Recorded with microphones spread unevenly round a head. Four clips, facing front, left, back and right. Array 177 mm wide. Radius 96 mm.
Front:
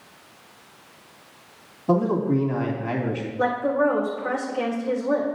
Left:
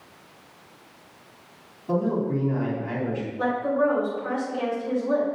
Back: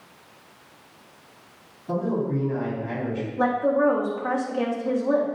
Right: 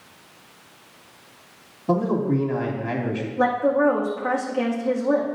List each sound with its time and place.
1.9 s a man speaking: 35° right, 2.5 m
3.4 s a woman speaking: 115° right, 1.9 m